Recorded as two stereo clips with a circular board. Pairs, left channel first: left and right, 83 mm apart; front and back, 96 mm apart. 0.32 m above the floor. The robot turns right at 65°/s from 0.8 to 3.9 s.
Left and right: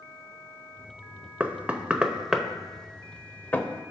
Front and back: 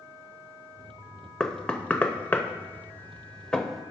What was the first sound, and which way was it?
Knocking, 75° right.